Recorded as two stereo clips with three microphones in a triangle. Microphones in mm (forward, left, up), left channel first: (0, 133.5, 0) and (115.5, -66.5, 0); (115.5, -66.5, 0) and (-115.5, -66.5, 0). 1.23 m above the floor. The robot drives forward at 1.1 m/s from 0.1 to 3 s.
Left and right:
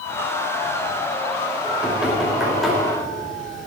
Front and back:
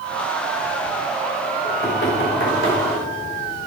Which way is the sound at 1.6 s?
25° left.